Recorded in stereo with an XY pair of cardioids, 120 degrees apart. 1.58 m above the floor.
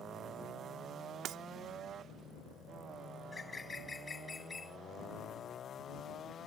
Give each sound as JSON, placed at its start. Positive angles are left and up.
{"t": 1.2, "sound": "breaking glass", "azimuth_deg": -70}
{"t": 3.2, "sound": "a bird", "azimuth_deg": 25}